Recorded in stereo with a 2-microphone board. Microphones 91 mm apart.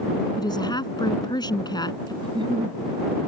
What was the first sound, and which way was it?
A woman speaking, 55° left (ahead or behind).